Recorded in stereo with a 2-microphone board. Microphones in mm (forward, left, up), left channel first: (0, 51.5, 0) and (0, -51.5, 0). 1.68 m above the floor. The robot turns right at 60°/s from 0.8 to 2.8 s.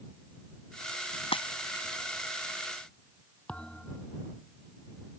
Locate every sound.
1.3 s breaking glass: 65° left (ahead or behind); by 1.9 s 30° left (ahead or behind)
3.5 s a thud: 10° left (ahead or behind)